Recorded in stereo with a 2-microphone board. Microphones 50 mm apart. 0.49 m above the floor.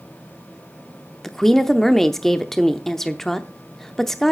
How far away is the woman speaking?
About 0.7 m.